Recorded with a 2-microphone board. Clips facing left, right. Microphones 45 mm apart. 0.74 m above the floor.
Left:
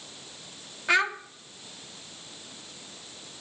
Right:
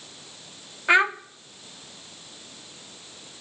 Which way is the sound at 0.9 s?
20° right (ahead or behind).